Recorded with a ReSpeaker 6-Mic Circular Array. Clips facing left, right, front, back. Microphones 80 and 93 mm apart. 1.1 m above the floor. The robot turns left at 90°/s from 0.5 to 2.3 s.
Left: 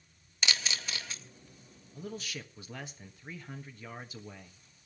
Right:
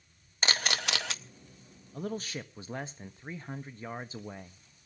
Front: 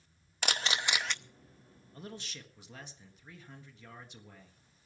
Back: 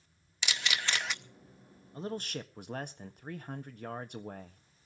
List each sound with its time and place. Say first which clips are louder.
0.4 s a camera shutter: right 4 dB, front 2 dB; 40° right, 0.8 m; by 1.2 s 100° right, 0.8 m
1.9 s a man speaking: right 5 dB, back 9 dB; 115° right, 1.5 m; by 4.6 s 145° right, 1.5 m